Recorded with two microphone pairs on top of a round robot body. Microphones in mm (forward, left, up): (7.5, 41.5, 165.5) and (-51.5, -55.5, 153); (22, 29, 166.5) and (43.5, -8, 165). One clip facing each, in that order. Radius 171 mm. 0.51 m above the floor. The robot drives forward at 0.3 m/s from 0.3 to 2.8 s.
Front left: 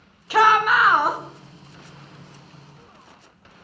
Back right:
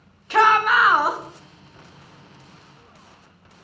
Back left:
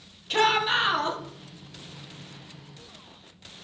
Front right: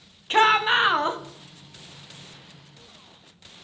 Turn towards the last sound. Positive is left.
turn(degrees=-135)